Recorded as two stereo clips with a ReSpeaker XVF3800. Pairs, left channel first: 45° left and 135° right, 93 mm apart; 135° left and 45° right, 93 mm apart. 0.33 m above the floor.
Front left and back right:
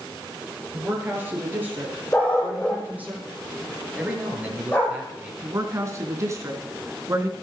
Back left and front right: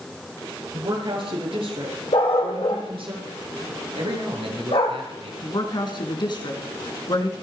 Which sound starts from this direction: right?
A woman speaking, at 0.7 s.